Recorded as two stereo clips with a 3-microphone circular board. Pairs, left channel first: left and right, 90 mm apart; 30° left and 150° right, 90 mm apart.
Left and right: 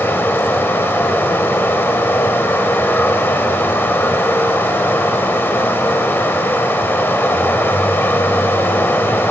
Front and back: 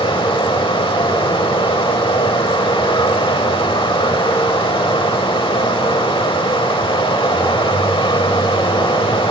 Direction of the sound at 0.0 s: 25° left.